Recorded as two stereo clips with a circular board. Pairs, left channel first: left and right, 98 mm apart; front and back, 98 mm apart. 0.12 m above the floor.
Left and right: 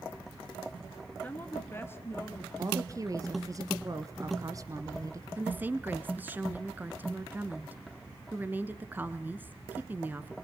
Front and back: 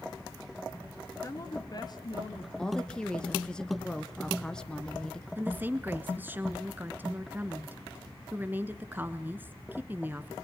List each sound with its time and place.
1.2 s a woman speaking: 30° left, 1.5 m
2.6 s a woman speaking: 75° right, 1.2 m
5.4 s a woman speaking: 135° right, 1.2 m